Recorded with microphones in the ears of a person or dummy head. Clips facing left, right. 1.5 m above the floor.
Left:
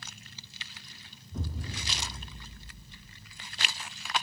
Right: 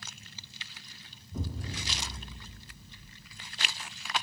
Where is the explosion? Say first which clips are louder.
Right 1 dB; 5° right (ahead or behind), 0.6 m.